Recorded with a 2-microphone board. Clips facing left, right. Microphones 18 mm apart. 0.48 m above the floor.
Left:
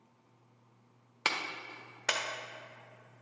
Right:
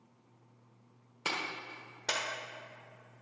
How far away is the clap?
About 1.1 m.